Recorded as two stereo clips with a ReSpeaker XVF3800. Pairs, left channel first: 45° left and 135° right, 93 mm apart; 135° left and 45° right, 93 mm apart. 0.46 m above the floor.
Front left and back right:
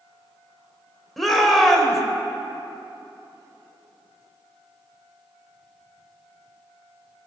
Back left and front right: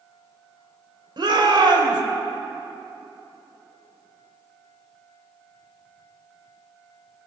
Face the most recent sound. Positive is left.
turn(degrees=-45)